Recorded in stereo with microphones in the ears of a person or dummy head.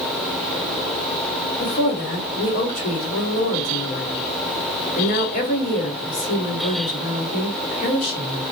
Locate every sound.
1.6 s a woman speaking: 50° left (ahead or behind), 1.5 m